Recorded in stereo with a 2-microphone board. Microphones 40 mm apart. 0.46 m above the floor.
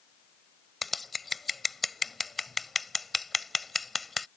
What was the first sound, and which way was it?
Scissors, centre (ahead or behind).